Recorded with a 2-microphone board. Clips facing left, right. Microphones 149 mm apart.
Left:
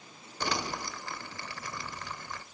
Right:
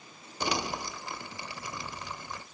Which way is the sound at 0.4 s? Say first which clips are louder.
Right 2 dB; 15° right (ahead or behind).